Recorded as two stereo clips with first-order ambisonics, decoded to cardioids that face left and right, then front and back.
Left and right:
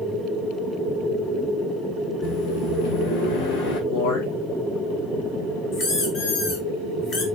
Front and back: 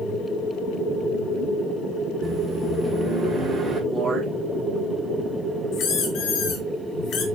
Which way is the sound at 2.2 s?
90° left.